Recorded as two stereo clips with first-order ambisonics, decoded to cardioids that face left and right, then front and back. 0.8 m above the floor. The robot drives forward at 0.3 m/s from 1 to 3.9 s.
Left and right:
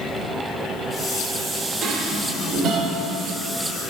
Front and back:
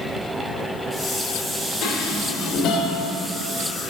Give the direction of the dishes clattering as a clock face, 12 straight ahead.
1 o'clock.